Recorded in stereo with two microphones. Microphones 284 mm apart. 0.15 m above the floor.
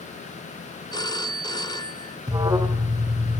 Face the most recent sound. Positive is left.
turn(degrees=-15)  # may be behind; listen again after turning